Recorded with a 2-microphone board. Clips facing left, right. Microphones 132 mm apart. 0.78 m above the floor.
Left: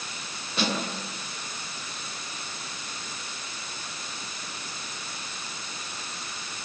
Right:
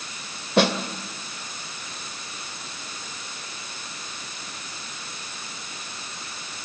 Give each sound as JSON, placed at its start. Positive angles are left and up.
{"t": 0.6, "sound": "a snare drum", "side_deg": -75, "distance_m": 2.5}